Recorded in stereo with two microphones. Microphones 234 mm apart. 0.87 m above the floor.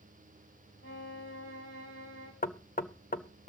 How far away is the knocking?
About 0.8 m.